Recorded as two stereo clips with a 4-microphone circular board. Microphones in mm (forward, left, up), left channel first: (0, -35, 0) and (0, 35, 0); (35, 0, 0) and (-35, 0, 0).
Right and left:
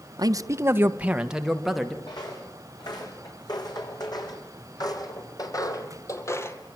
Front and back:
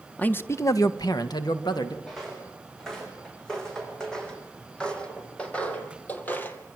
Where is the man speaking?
70° left, 1.2 m; by 2.0 s straight ahead, 2.5 m.